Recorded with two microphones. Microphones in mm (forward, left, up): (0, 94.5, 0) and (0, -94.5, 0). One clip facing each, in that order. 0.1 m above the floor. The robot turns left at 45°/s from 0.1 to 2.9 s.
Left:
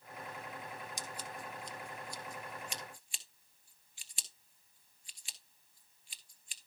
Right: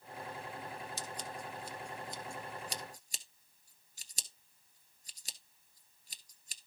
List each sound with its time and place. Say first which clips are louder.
1.0 s scissors: right 2 dB; 15° left (ahead or behind), 1.5 m; by 6.6 s 40° right (ahead or behind), 1.5 m